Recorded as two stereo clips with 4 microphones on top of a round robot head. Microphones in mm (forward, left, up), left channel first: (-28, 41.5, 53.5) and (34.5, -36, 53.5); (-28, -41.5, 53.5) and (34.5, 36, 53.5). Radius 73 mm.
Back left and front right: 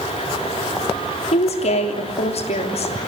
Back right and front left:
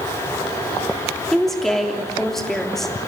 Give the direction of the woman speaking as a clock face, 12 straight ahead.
7 o'clock.